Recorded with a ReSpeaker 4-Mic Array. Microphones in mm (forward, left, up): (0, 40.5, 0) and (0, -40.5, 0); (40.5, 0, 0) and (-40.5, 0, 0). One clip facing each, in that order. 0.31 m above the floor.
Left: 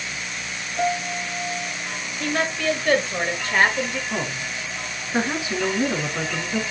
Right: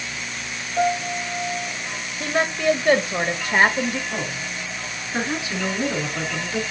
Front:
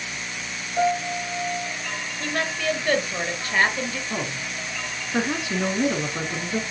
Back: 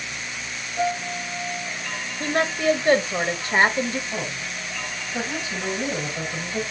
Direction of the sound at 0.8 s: 45° right.